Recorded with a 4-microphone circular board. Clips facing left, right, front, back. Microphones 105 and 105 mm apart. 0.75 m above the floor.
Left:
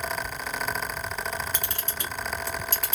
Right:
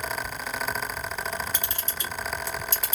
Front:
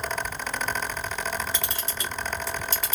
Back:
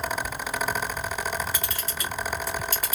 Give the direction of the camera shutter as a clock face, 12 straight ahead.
10 o'clock.